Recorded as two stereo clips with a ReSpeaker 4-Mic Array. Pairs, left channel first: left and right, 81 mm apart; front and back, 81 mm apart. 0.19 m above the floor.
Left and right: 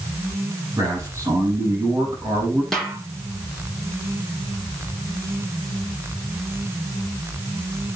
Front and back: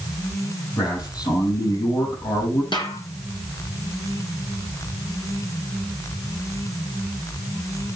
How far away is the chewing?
No chewing in this recording.